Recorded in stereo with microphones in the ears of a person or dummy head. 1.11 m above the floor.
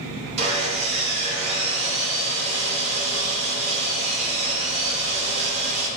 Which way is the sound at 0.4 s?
30° right (ahead or behind).